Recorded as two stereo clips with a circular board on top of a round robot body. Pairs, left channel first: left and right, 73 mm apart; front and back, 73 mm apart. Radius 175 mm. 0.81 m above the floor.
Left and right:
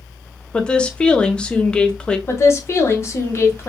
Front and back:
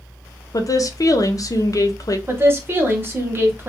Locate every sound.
0.5 s a woman speaking: 15° left, 0.7 m
2.3 s a woman speaking: 130° left, 1.1 m